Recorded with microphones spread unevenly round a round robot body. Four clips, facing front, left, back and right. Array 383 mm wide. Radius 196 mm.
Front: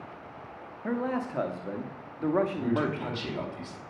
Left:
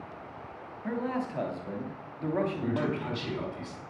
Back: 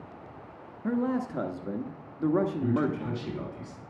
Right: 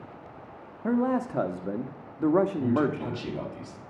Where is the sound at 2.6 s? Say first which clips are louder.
Right 5 dB, back 1 dB; 30° right, 3 m.